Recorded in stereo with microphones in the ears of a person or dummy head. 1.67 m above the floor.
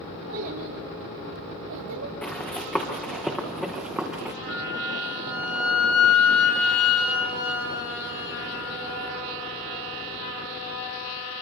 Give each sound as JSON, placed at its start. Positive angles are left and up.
{"t": 0.3, "sound": "a child speaking", "side_deg": -80, "distance_m": 3.5}
{"t": 2.2, "sound": "running footsteps", "side_deg": 10, "distance_m": 5.0}
{"t": 4.5, "sound": "a flute", "side_deg": 70, "distance_m": 8.0}